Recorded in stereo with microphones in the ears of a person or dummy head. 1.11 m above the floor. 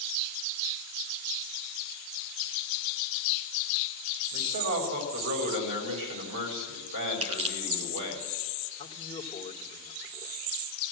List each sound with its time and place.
4.3 s a man speaking: 75° right (ahead or behind), 6 m
7.2 s crushing: 35° right (ahead or behind), 3 m
8.8 s a man speaking: 30° left (ahead or behind), 2.5 m